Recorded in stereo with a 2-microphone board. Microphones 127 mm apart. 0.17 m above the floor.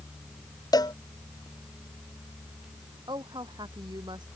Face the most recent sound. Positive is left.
turn(degrees=-35)  # may be behind; listen again after turning